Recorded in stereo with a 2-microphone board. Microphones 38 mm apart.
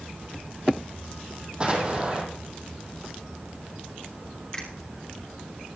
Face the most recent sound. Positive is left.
turn(degrees=15)  # may be behind; listen again after turning